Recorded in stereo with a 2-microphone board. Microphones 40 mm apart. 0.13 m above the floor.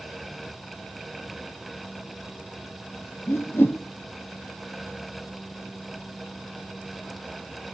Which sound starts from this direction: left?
A whoosh, at 3.3 s.